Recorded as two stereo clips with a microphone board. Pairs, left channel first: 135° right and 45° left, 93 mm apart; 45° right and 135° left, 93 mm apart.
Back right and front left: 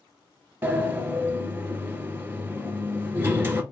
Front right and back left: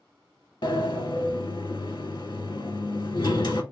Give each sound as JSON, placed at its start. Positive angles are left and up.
{"t": 0.6, "sound": "a sliding door", "azimuth_deg": -15, "distance_m": 0.7}